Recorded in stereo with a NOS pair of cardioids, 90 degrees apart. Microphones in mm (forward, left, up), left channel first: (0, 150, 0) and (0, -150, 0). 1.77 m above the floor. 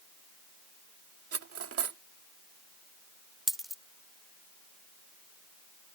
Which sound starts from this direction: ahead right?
Cutlery clinking, at 1.3 s.